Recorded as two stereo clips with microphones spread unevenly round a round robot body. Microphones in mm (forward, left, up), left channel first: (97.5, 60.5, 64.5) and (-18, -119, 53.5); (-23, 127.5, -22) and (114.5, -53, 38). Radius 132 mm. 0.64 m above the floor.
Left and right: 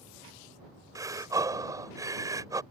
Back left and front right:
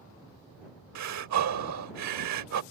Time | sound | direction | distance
0.9 | breathing | 50° right | ?